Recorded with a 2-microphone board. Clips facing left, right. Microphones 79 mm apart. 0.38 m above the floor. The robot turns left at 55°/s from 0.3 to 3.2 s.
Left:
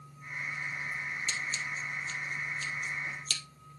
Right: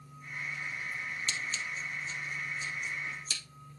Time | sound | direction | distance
1.3 | scissors | 15° left (ahead or behind) | 1.8 m